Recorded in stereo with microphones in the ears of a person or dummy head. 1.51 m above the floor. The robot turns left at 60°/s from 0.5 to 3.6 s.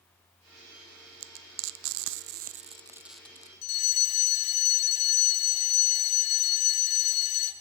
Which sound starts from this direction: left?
A fire alarm, at 3.6 s.